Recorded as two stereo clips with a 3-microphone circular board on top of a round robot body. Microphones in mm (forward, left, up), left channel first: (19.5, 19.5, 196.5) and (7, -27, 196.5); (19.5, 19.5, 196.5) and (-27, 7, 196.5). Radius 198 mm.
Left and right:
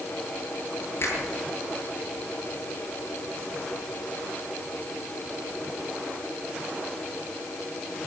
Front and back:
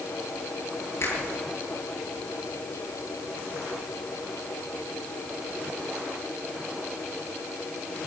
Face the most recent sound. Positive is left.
turn(degrees=45)